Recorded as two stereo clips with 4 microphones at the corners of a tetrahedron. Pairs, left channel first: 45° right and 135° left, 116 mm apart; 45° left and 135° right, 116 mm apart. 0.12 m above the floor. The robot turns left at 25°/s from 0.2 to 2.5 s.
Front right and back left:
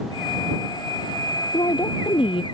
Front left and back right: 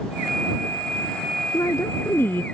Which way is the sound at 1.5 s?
5° right.